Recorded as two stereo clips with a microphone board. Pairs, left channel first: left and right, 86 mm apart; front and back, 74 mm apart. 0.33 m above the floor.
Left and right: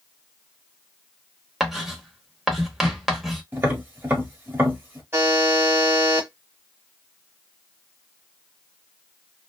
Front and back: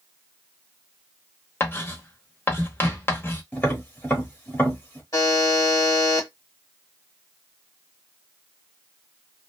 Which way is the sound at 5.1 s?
30° right.